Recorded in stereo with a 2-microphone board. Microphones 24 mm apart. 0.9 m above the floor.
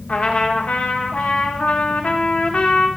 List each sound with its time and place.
0.1 s a trumpet: 65° left (ahead or behind), 1.4 m